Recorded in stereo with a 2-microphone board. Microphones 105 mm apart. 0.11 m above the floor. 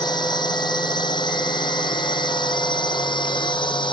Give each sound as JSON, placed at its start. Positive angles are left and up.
{"t": 0.0, "sound": "a drone", "side_deg": 45}